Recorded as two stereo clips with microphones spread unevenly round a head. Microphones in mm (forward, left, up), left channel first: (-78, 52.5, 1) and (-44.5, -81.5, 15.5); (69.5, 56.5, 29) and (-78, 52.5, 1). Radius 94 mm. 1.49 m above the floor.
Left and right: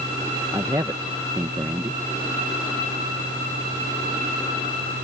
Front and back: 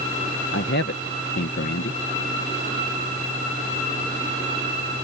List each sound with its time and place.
0.5 s a man speaking: straight ahead